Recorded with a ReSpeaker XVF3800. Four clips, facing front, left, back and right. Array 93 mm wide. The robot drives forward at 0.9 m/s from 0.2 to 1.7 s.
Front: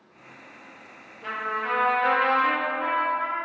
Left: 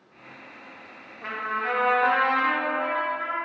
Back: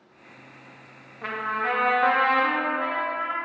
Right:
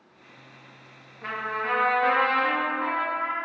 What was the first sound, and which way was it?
A trumpet, 175° left.